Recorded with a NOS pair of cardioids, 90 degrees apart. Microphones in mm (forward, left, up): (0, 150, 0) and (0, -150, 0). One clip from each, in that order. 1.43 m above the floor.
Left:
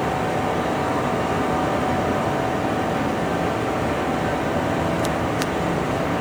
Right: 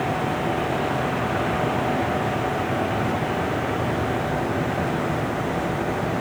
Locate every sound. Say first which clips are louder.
0.0 s a fan: left 2 dB; 45° left, 4 m